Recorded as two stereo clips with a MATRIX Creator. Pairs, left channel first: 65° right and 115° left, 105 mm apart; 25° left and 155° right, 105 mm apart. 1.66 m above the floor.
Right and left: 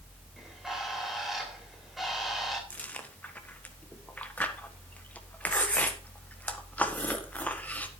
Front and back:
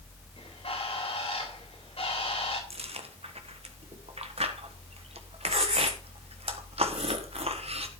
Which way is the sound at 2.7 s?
145° right.